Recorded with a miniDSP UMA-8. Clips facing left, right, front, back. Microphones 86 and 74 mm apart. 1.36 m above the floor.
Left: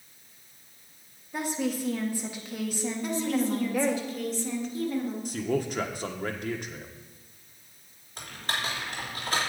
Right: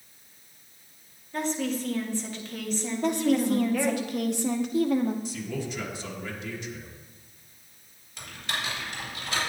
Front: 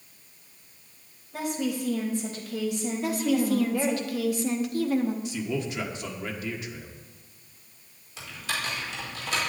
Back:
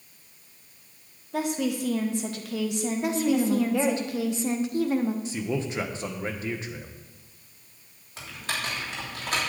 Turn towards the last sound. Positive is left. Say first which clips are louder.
# left 1 dB, even
turn(degrees=135)